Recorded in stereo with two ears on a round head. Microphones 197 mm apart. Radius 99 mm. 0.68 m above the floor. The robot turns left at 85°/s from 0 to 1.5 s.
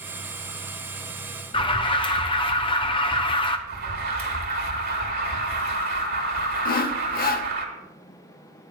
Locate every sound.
1.5 s an alarm: 25° left (ahead or behind), 0.7 m
3.7 s an alarm: 45° right (ahead or behind), 2 m
6.7 s sawing: 40° left (ahead or behind), 0.7 m